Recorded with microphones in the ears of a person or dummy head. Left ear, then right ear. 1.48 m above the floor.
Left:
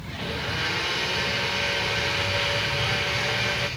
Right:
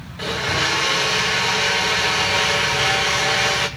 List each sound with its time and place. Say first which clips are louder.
0.2 s a blender: right 8 dB; 60° right (ahead or behind), 2.5 m